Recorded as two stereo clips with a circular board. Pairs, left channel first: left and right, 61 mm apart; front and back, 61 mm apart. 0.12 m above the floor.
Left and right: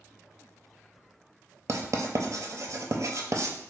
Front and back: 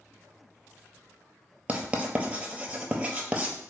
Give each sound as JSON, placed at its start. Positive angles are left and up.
{"t": 1.7, "sound": "writing", "azimuth_deg": -110, "distance_m": 0.6}